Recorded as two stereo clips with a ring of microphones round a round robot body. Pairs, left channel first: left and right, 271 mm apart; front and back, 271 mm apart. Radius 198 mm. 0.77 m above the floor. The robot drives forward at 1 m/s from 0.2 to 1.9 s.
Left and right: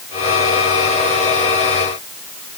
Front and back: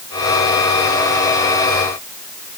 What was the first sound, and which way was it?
Only background noise.